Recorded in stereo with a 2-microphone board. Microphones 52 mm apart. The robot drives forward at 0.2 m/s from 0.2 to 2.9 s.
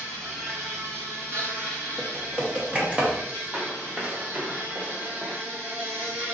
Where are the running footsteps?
15° right (ahead or behind), 1.3 m; by 5.4 s 45° right (ahead or behind), 1.1 m.